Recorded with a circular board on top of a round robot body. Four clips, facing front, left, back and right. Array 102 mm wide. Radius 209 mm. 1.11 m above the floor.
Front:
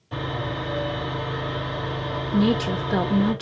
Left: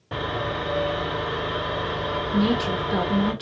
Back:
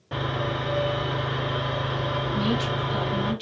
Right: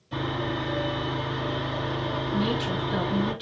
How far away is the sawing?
About 3 m.